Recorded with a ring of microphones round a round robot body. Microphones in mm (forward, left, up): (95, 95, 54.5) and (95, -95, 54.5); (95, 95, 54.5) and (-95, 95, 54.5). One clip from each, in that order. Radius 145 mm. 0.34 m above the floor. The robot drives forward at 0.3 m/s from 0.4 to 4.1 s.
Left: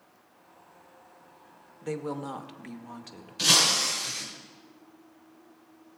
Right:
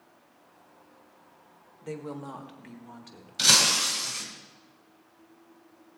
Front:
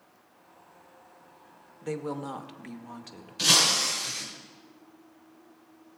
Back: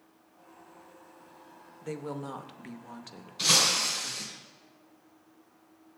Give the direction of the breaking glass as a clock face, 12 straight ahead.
3 o'clock.